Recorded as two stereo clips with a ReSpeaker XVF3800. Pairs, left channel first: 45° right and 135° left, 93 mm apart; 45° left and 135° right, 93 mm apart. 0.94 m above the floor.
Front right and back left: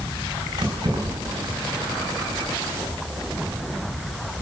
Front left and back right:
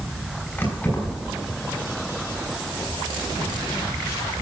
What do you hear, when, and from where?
0.6 s keys jangling: 110° left, 5.5 m